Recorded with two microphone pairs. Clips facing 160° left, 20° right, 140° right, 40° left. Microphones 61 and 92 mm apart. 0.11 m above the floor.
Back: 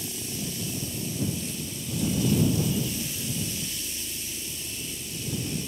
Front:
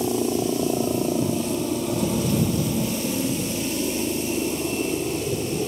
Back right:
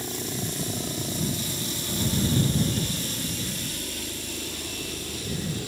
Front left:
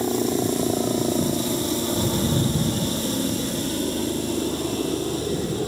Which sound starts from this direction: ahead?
A helicopter, at 0.0 s.